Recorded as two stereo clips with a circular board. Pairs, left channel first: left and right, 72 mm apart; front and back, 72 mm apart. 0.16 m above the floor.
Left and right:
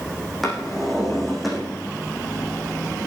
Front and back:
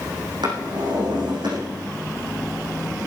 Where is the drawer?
Straight behind, 5.5 m.